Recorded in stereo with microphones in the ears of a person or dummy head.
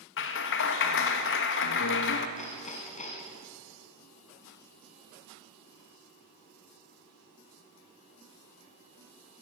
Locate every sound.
0.2 s a clap: 65° left (ahead or behind), 1.5 m
2.4 s hammering: 35° left (ahead or behind), 3 m